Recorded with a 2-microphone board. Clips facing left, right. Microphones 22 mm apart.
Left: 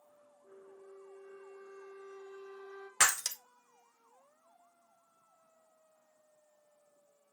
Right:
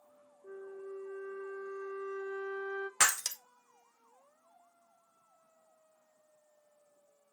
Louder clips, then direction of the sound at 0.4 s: Right 10 dB; 50° right (ahead or behind).